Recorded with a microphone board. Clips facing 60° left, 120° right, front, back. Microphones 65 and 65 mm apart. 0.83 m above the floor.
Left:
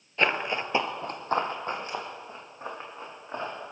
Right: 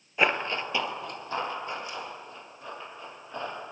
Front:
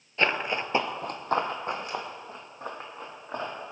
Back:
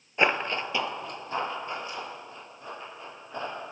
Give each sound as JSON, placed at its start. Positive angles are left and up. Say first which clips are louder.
{"t": 0.2, "sound": "running footsteps", "louder": "even, back 1 dB", "azimuth_deg": 180, "distance_m": 0.8}